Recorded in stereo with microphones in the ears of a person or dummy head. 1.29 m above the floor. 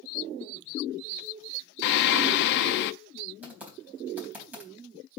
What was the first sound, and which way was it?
Singing, 60° left (ahead or behind).